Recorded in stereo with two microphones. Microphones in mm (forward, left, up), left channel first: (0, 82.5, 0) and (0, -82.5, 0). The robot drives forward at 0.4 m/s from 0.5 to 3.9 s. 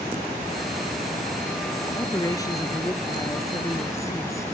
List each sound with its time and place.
2.0 s a woman speaking: 25° left (ahead or behind); by 4.5 s 20° left (ahead or behind)